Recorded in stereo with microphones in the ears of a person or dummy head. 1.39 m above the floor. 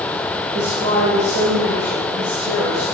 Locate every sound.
0.5 s a woman speaking: 85° right, 5 m; by 2.8 s 90° right, 6 m